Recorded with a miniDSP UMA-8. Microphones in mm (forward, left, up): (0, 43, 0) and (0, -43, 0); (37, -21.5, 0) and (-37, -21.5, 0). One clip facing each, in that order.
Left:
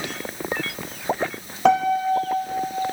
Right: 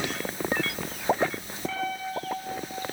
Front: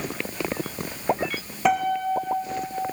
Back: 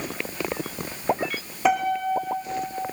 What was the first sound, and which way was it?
A piano, 95° left.